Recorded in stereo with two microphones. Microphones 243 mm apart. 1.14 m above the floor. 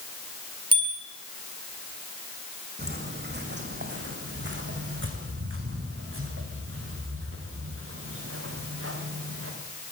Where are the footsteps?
40° right (ahead or behind), 4.5 m; by 9.5 s 65° right (ahead or behind), 8 m.